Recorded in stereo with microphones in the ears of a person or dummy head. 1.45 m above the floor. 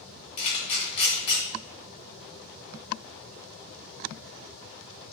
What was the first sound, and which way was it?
A camera shutter, 40° left (ahead or behind).